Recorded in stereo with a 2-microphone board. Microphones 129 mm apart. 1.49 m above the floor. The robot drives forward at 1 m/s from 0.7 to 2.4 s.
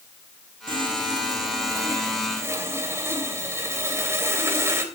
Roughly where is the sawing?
Right.